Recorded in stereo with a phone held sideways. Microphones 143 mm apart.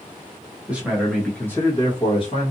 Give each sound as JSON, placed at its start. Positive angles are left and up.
{"t": 0.7, "sound": "a man speaking", "side_deg": -10, "distance_m": 1.3}